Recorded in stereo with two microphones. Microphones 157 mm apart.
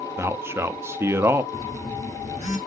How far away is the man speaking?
About 0.5 m.